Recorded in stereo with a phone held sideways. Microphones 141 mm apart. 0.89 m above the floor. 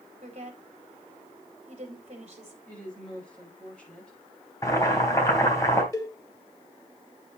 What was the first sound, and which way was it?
A woman speaking, 50° right (ahead or behind).